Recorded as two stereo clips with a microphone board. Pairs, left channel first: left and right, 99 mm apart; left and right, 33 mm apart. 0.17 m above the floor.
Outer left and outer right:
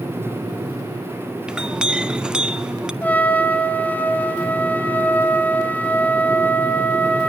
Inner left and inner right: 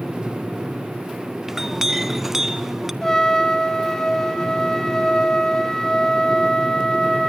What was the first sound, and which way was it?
A clink, 10° right (ahead or behind).